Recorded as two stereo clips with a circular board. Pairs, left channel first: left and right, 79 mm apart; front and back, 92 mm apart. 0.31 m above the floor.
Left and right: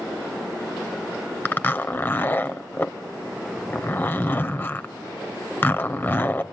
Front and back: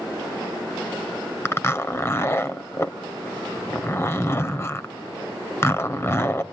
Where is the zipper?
40° left, 0.8 m.